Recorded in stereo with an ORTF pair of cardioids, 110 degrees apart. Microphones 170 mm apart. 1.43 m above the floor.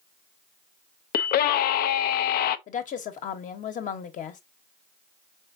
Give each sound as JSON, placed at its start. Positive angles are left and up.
{"t": 1.1, "sound": "a scream", "azimuth_deg": 70, "distance_m": 0.7}
{"t": 2.7, "sound": "a woman speaking", "azimuth_deg": 50, "distance_m": 1.2}